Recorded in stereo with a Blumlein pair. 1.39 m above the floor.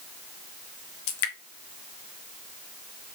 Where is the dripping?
45° left, 0.8 m.